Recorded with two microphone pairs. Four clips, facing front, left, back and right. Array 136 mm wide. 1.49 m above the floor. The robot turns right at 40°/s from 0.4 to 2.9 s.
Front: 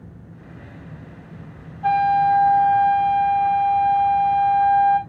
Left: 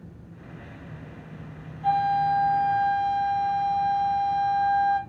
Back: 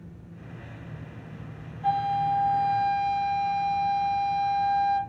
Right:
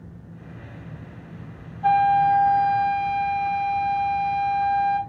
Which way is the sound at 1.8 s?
40° right.